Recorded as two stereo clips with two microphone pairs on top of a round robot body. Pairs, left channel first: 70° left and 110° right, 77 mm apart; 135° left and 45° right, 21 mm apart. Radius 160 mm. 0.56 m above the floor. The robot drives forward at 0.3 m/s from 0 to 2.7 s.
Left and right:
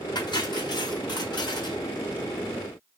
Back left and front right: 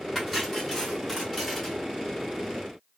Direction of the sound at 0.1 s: 50° left.